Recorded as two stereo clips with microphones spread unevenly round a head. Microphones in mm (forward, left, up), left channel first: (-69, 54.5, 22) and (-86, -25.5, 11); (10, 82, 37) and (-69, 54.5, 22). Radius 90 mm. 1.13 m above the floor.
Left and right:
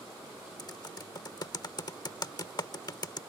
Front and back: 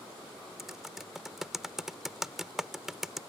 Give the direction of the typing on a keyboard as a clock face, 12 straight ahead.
8 o'clock.